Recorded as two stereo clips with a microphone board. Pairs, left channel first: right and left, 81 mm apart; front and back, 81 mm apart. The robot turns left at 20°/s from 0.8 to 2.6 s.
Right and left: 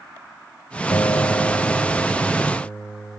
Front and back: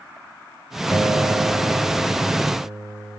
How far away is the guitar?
About 1.4 m.